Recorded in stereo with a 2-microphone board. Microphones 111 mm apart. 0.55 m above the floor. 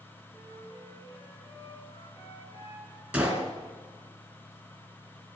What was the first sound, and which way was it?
A flute, 50° left (ahead or behind).